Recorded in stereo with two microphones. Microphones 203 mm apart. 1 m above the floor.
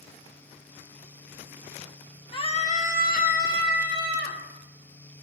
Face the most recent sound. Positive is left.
turn(degrees=55)  # may be behind; listen again after turning